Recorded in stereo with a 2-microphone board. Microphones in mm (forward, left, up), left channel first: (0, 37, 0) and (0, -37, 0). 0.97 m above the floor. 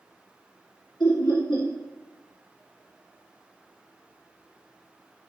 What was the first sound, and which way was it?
Laughter, 80° left.